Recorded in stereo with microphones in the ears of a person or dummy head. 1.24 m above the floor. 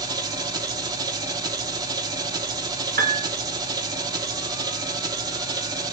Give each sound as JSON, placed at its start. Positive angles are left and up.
{"t": 0.0, "sound": "an engine running", "side_deg": -20, "distance_m": 0.8}
{"t": 3.0, "sound": "a piano", "side_deg": -45, "distance_m": 0.9}